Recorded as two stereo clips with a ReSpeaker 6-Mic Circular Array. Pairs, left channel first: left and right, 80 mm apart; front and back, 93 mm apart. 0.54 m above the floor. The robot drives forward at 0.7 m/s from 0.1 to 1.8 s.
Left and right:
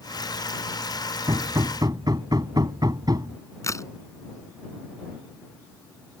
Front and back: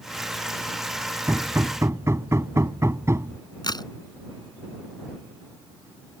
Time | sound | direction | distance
1.3 | hammering | 115° right | ?
3.6 | a crack | 40° left | ?